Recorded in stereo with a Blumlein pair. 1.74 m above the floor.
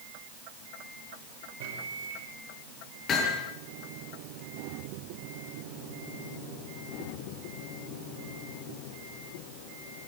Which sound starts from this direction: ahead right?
A microwave, at 1.6 s.